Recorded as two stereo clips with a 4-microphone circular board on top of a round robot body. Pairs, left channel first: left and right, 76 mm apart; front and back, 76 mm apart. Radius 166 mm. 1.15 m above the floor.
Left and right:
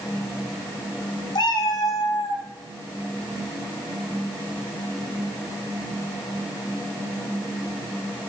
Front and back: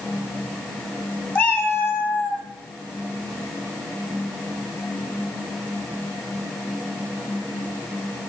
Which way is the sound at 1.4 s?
70° left.